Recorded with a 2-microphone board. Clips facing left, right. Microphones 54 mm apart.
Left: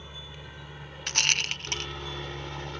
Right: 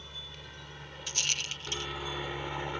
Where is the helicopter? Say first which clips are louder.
Left 2 dB; 15° left (ahead or behind); by 2.8 s 15° right (ahead or behind).